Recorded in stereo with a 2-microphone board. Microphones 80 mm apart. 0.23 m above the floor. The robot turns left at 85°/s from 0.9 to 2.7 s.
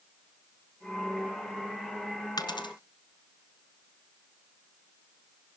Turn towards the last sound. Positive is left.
turn(degrees=75)  # may be behind; listen again after turning